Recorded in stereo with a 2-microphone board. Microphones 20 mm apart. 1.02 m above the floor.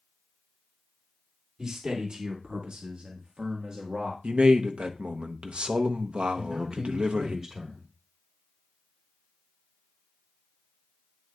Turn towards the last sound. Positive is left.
turn(degrees=-30)  # may be behind; listen again after turning